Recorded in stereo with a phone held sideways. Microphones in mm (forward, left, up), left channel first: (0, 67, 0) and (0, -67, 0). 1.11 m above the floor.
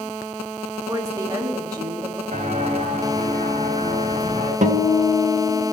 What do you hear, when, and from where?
0.9 s a woman speaking: 25° right (ahead or behind), 1.2 m
2.3 s footsteps: 60° right (ahead or behind), 3.5 m
4.6 s a guitar: 70° right (ahead or behind), 0.8 m